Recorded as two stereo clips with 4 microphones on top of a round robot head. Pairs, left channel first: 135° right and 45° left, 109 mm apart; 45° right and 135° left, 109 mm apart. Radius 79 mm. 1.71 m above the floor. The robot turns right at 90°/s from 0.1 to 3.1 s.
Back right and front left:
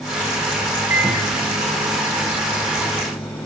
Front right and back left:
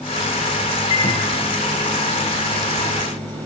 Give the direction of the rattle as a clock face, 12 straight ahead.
I don't hear a rattle.